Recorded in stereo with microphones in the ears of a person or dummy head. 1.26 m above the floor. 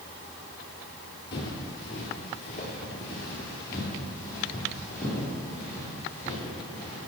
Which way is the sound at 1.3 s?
25° left (ahead or behind).